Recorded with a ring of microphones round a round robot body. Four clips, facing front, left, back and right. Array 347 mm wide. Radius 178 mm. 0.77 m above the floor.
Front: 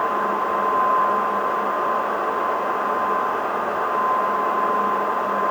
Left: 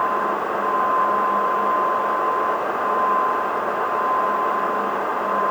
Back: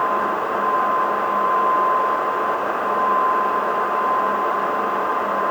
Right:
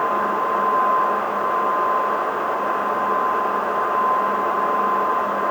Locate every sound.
Only background noise.